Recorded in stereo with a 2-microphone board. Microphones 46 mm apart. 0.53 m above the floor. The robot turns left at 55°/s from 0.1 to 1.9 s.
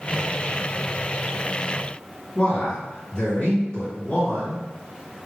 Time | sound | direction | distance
2.4 | a man speaking | 20° left (ahead or behind) | 2.0 m